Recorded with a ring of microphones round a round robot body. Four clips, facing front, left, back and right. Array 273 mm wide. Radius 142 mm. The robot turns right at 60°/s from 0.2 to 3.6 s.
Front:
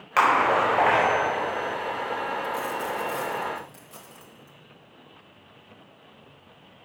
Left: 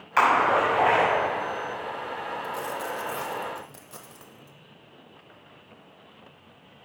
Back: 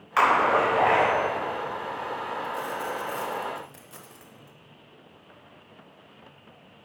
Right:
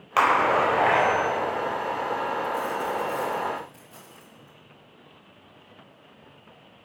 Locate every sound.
0.2 s a splash: 55° right, 4.5 m; by 1.1 s 5° right, 4.5 m
2.4 s a dropped coin: 40° left, 1.3 m; by 4.6 s 110° left, 1.3 m